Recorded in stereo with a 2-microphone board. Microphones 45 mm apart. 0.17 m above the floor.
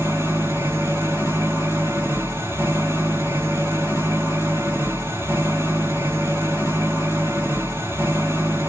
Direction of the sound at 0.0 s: 65° right (ahead or behind).